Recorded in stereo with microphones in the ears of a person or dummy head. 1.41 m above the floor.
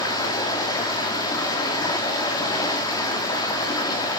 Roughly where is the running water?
Left.